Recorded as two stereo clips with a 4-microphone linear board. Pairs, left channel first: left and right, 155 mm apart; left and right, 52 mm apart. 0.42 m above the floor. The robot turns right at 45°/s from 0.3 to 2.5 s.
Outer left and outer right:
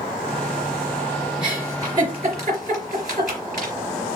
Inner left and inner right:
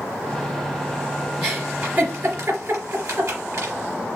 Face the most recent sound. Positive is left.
turn(degrees=-55)  # may be behind; listen again after turning